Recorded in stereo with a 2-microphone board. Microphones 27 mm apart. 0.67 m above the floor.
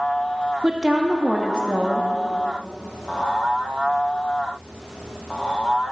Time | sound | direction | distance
0.6 | a woman speaking | 30° right (ahead or behind) | 0.8 m